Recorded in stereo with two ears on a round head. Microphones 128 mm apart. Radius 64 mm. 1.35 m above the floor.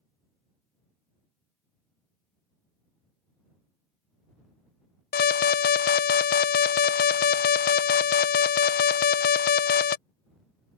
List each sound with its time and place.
5.1 s an alarm: 70° left (ahead or behind)